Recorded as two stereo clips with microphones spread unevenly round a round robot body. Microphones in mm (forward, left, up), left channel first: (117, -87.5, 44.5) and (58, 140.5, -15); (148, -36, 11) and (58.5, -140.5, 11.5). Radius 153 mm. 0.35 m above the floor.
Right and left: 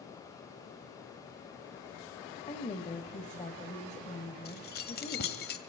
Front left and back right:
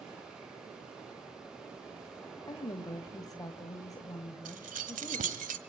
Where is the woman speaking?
10° right, 2.5 m.